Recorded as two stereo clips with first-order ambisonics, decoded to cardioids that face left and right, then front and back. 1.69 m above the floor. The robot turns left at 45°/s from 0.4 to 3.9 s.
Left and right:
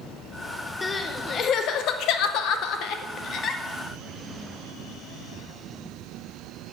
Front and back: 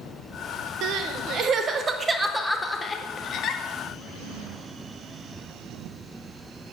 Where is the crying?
160° left, 0.9 m; by 3.6 s 35° left, 0.9 m.